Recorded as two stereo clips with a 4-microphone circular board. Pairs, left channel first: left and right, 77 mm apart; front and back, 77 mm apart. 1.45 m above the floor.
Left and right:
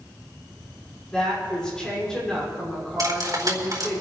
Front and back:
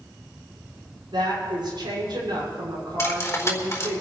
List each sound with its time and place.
1.1 s a woman speaking: 170° left, 5.5 m
3.0 s cutlery clinking: 55° right, 3 m